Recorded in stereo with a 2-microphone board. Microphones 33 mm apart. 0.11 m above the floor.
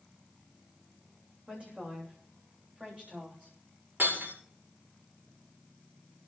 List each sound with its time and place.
1.5 s a woman speaking: 40° right (ahead or behind), 8 m; by 3.5 s 35° right (ahead or behind), 9.5 m
4.0 s breaking glass: 80° right, 8.5 m